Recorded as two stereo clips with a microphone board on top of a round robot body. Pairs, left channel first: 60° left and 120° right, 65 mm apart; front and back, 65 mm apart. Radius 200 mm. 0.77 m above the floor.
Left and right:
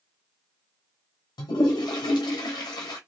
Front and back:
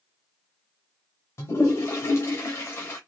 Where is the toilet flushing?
50° left, 0.6 m.